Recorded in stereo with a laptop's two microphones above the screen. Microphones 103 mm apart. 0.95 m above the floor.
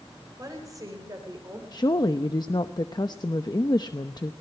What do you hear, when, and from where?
0.4 s a woman speaking: 35° right (ahead or behind), 4 m; by 1.6 s 30° right (ahead or behind), 3 m
1.7 s a woman speaking: 40° left (ahead or behind), 0.7 m